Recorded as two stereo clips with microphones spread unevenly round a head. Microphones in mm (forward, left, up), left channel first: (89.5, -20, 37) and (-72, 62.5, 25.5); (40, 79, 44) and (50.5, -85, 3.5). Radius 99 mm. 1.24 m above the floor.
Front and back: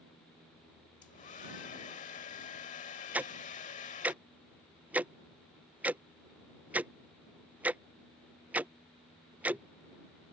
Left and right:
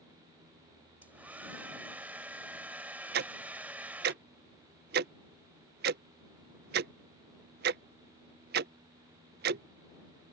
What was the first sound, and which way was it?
A hair dryer, 5° left.